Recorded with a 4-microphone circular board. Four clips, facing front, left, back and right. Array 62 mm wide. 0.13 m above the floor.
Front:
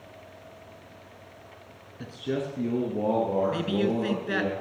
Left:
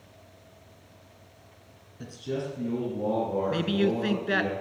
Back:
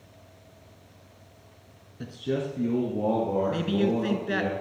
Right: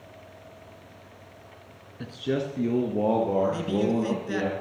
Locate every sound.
2.0 s a man speaking: 85° right, 1.2 m
3.5 s a man speaking: 80° left, 1.3 m